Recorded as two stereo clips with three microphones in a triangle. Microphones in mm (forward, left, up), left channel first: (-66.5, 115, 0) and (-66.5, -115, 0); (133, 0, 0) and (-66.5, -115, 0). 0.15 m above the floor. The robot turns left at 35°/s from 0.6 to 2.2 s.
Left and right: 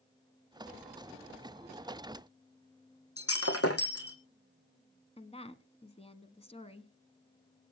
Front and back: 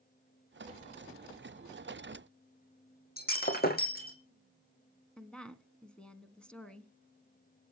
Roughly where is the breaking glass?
Left.